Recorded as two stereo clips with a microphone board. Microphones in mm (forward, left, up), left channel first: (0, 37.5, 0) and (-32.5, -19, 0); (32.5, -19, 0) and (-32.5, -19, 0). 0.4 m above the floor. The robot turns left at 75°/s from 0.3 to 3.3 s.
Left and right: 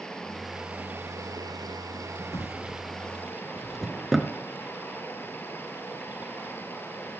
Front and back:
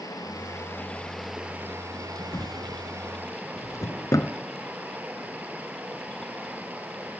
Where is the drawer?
45° left, 1.9 m; by 4.3 s 30° right, 1.9 m.